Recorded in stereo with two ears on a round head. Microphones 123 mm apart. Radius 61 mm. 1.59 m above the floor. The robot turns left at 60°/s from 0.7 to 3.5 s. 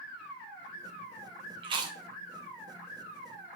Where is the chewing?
40° right (ahead or behind), 0.6 m; by 2.0 s 25° right (ahead or behind), 0.6 m.